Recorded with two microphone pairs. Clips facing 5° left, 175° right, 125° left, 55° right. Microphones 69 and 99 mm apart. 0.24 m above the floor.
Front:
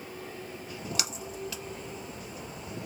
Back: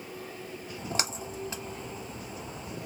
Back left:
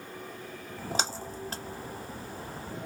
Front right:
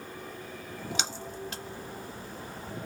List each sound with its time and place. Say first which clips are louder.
0.8 s a splash: back 3 dB, back left 3 dB; 150° left, 0.8 m